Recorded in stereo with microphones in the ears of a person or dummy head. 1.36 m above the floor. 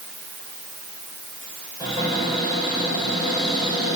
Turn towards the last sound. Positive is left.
turn(degrees=20)  # may be behind; listen again after turning